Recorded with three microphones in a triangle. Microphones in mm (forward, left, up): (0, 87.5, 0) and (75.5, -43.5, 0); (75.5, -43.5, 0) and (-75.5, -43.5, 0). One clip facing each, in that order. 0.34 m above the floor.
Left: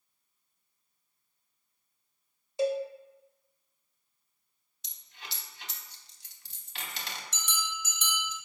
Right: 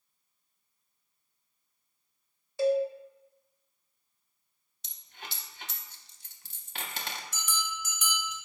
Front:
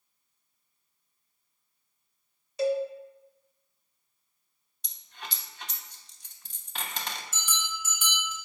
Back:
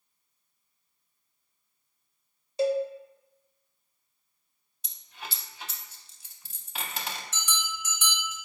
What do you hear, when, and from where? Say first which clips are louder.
2.6 s a cowbell: right 3 dB, back 1 dB; 170° left, 0.6 m
4.8 s a dropped coin: right 3 dB, back 1 dB; 95° right, 0.5 m
7.3 s a bell: right 1 dB, back 1 dB; 80° left, 1.7 m